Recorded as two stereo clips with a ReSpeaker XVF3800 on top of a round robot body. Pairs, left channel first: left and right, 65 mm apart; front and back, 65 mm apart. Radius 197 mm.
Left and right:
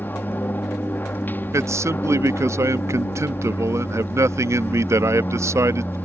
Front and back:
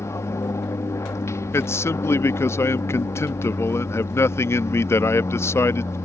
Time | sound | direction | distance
0.0 | an aircraft | 35° left | ?
1.5 | a man speaking | 45° right | ?